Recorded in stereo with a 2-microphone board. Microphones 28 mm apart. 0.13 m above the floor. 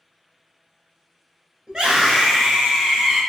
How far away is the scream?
About 1.4 m.